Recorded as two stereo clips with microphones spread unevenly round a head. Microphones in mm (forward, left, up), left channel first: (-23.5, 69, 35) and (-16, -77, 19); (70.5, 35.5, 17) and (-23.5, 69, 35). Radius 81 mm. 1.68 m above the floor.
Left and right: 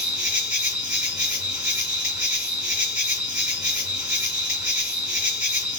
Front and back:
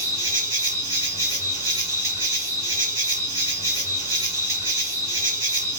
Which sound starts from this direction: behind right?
An insect, at 0.0 s.